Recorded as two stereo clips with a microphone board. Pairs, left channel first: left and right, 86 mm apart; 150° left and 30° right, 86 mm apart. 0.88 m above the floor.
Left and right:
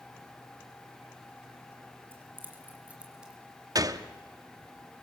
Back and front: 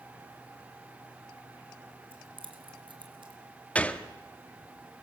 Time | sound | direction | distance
2.1 | keys jangling | 25° right | 2.5 m
3.8 | a gunshot | 135° right | 0.8 m